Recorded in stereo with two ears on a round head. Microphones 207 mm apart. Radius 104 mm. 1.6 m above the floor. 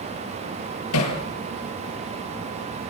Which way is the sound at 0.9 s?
70° left (ahead or behind).